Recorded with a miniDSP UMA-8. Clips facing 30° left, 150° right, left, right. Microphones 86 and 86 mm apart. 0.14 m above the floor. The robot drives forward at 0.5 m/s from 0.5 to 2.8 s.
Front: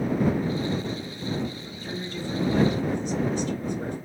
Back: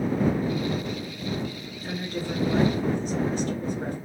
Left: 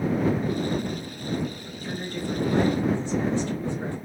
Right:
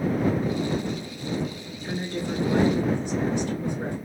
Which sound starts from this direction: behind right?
A woman speaking, at 1.8 s.